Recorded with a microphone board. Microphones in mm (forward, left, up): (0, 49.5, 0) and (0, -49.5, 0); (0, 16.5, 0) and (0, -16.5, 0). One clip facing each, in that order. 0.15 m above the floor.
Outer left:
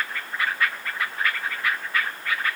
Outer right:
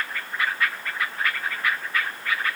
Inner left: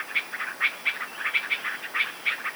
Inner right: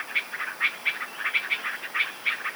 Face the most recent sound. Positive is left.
No sound to turn to.